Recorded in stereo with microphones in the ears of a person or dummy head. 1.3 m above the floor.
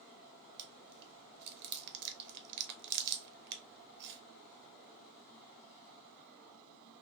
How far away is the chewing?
About 0.7 m.